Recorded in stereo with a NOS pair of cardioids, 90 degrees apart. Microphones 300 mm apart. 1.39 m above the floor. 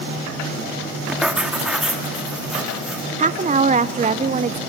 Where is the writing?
5° right, 1.9 m.